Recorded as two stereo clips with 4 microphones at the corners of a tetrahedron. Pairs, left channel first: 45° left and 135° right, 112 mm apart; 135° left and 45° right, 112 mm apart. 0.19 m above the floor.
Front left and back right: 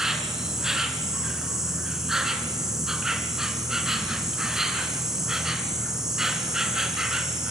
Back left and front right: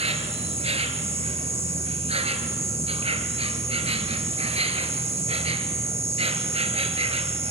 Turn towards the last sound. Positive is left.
turn(degrees=-50)